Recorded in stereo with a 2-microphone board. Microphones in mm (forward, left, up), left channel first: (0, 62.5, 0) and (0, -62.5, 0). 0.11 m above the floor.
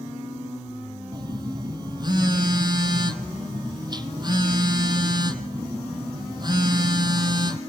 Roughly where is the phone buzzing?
Right.